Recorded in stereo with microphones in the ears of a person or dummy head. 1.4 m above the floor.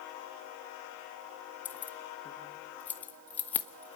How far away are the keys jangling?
About 1.0 m.